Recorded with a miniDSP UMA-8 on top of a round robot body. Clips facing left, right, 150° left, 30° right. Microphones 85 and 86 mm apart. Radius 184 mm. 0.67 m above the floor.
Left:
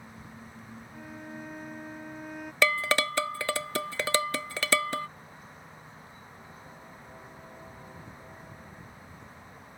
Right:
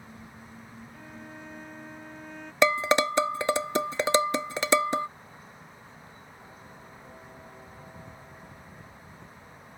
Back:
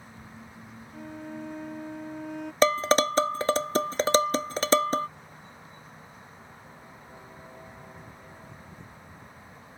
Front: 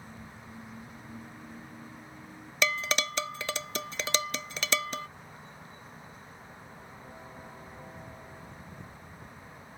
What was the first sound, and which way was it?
A violin, 170° left.